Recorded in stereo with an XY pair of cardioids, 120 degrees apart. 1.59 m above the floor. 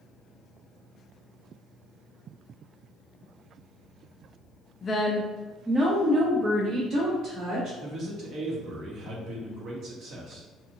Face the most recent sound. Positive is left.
turn(degrees=-55)